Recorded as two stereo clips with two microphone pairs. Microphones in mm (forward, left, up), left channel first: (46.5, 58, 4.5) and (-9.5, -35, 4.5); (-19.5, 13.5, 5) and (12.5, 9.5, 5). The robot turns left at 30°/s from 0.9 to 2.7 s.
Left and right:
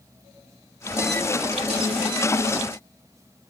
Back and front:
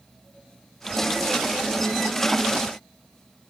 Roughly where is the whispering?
I don't hear whispering.